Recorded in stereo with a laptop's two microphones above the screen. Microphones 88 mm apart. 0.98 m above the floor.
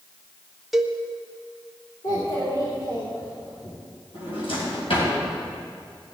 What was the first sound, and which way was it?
A cowbell, 5° right (ahead or behind).